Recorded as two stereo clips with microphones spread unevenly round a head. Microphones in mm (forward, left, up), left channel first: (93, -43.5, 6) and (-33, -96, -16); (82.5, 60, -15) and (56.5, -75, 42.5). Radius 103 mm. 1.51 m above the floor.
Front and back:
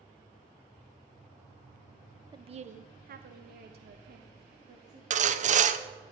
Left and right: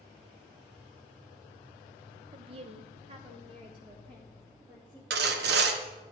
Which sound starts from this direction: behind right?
Sawing, at 5.1 s.